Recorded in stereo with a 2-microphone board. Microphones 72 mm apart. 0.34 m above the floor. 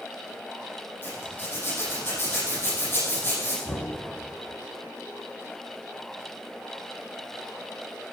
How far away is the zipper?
About 6 m.